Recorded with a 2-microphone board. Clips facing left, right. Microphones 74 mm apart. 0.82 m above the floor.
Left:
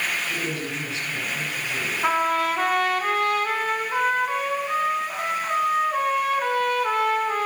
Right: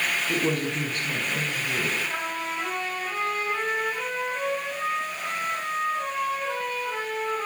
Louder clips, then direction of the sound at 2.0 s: Left 9 dB; 75° left (ahead or behind).